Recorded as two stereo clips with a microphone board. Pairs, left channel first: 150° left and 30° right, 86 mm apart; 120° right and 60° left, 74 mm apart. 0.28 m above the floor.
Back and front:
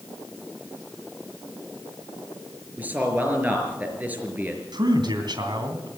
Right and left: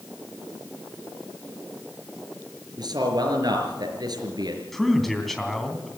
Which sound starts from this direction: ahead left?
A man speaking, at 2.8 s.